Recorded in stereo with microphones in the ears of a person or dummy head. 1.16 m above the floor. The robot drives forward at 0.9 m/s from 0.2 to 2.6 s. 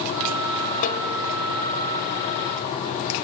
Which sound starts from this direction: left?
A snare drum, at 0.8 s.